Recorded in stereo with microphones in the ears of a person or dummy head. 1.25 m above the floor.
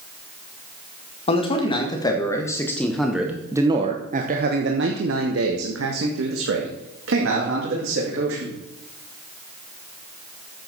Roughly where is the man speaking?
Left.